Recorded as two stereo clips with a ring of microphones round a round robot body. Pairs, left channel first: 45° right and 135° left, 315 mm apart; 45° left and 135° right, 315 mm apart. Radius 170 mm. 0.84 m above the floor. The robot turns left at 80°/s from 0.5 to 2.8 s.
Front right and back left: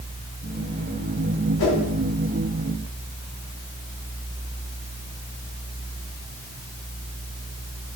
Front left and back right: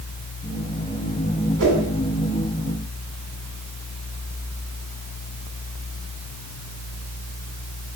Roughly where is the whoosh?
Right.